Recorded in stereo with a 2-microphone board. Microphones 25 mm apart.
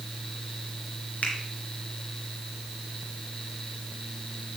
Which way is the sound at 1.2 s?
60° left (ahead or behind).